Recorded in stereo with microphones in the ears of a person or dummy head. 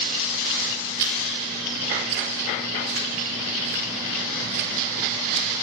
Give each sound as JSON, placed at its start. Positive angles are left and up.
{"t": 1.0, "sound": "chewing", "side_deg": -65, "distance_m": 4.0}